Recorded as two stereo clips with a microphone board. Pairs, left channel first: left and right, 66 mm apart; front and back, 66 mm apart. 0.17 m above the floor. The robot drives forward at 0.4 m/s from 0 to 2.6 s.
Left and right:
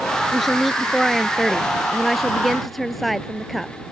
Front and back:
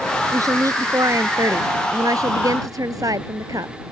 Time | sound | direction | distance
0.3 | a woman speaking | straight behind | ?